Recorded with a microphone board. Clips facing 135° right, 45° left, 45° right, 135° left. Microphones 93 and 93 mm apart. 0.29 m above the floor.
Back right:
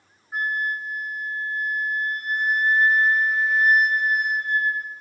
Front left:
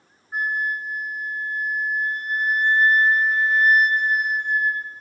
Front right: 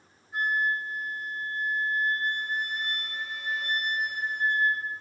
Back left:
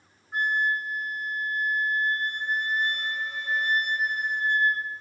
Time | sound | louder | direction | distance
0.3 | a flute | front left 1 dB, back left 2 dB | 140° left | 3 m